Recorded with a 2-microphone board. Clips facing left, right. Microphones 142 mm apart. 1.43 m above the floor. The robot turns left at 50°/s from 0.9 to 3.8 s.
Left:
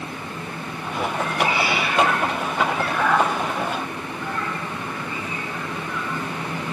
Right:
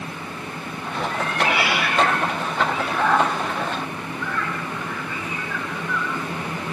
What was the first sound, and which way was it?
A cat meowing, 70° right (ahead or behind).